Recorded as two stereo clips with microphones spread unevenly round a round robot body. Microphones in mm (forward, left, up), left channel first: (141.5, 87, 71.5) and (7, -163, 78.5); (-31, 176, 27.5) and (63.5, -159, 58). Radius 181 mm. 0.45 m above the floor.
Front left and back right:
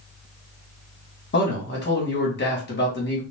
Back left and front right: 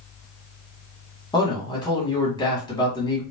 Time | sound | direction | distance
1.3 | a man speaking | 40° left | 1.3 m